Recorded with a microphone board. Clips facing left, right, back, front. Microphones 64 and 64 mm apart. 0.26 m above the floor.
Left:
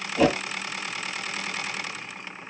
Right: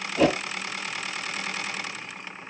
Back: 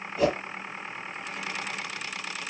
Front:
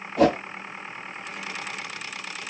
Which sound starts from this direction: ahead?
A whoosh, at 0.2 s.